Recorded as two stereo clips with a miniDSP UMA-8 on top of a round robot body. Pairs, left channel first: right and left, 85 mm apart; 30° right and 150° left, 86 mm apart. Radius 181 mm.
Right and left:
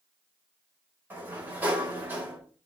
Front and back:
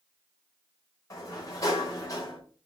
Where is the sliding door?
20° left, 3.5 m.